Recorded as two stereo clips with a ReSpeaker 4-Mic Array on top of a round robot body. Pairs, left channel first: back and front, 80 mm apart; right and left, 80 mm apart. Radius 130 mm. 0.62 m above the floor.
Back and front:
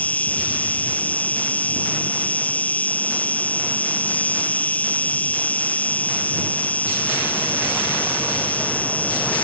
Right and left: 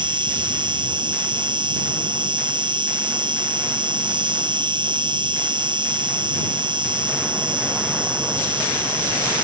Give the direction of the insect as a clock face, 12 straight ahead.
8 o'clock.